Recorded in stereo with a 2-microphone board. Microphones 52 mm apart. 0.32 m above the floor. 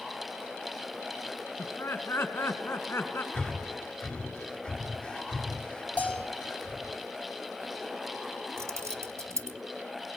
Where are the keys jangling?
65° right (ahead or behind), 1.4 m.